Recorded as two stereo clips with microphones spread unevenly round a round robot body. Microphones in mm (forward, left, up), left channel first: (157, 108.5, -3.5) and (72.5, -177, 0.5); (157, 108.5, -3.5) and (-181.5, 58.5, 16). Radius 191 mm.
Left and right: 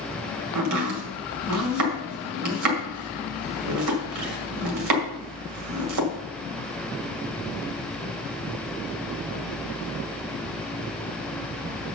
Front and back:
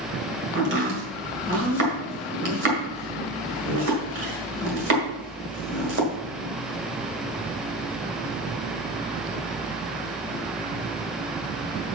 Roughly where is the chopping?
Behind right.